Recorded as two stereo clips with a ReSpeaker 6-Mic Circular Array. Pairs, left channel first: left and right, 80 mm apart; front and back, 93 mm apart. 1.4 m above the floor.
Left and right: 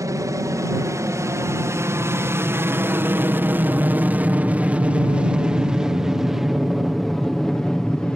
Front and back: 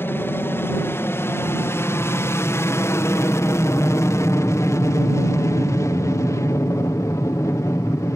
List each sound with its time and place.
0.0 s an aircraft: 60° right; by 8.2 s 20° left